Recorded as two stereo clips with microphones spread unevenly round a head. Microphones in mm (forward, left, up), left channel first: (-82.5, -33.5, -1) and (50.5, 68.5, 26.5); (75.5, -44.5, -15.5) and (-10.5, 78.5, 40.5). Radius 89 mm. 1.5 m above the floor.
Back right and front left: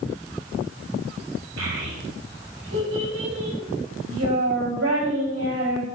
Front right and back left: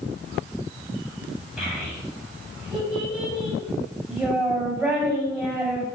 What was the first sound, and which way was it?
A child speaking, 45° left.